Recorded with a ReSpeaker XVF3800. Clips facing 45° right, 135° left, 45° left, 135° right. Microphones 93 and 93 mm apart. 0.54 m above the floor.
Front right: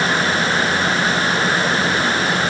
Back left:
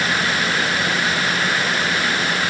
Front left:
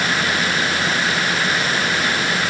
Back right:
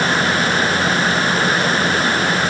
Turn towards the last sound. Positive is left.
No sound to turn to.